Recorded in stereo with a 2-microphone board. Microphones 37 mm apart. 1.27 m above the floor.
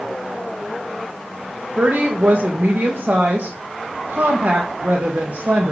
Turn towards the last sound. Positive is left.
turn(degrees=-50)  # may be behind; listen again after turning